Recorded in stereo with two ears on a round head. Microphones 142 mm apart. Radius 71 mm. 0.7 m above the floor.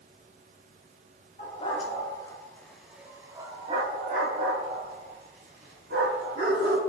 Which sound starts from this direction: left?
A dog barking, at 1.4 s.